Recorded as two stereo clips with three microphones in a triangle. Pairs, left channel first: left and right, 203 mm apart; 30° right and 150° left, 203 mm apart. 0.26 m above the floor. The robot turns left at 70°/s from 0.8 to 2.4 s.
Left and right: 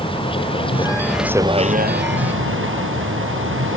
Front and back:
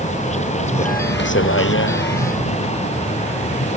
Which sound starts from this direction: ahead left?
A vehicle, at 0.0 s.